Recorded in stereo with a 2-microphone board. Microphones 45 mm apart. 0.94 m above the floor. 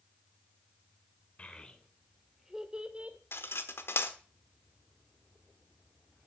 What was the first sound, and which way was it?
A child speaking, 30° left (ahead or behind).